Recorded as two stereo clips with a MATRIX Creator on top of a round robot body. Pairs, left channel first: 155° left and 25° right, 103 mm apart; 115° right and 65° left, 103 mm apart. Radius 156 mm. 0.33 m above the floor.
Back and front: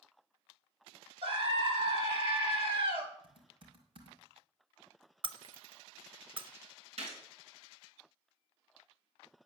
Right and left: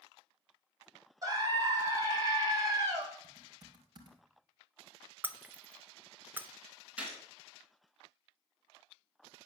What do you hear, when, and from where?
1.2 s a scream: 10° left, 3.5 m
3.2 s typing on a keyboard: 15° left, 1.9 m
5.2 s breaking glass: straight ahead, 0.8 m
7.0 s a gunshot: 10° right, 3.5 m